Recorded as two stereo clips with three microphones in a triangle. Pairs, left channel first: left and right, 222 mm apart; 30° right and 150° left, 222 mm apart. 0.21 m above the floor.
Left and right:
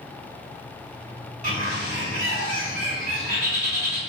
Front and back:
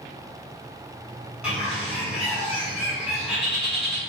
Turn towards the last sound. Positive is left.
turn(degrees=-130)